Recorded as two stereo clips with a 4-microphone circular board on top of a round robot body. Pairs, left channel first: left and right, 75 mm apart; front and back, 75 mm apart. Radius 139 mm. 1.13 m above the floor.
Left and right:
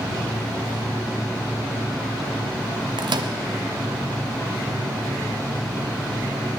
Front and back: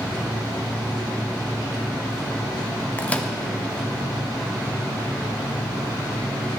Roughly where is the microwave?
Right.